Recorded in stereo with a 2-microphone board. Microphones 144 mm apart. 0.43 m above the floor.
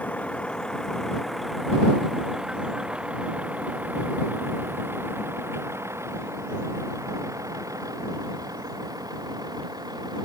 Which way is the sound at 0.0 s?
10° left (ahead or behind).